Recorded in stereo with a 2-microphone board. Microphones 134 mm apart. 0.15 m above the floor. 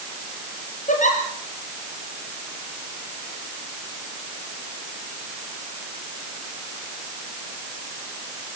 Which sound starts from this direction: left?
A giggle, at 0.9 s.